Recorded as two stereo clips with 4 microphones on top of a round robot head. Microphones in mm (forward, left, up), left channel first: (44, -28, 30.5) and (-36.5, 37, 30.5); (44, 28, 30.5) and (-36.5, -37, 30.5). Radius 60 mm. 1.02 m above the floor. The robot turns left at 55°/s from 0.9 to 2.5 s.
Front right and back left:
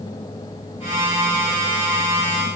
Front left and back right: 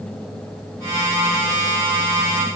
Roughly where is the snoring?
No snoring in this recording.